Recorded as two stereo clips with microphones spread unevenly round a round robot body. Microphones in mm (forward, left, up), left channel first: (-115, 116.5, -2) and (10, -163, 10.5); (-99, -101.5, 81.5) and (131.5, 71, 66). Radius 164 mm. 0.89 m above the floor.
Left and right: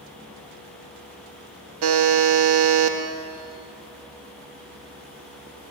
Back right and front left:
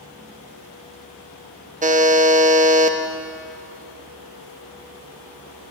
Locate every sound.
1.8 s a buzzer: 25° right, 1.7 m